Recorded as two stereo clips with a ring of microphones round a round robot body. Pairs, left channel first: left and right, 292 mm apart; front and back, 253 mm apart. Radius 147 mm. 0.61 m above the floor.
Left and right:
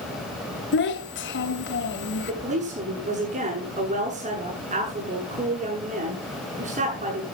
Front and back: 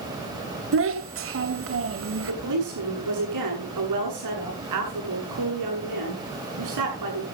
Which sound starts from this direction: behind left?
A child speaking, at 0.7 s.